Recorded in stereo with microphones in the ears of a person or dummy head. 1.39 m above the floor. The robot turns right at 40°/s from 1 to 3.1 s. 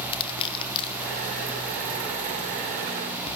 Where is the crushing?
30° left (ahead or behind), 1.2 m; by 1.9 s 65° left (ahead or behind), 1.2 m.